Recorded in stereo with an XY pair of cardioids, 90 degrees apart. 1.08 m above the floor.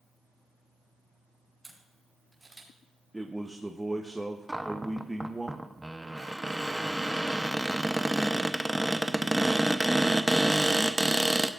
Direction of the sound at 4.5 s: 10° right.